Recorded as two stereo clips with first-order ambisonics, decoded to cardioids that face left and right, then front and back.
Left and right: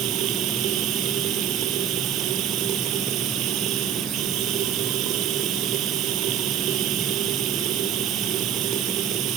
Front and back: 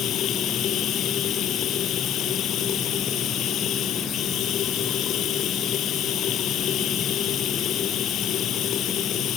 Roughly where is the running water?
Ahead right.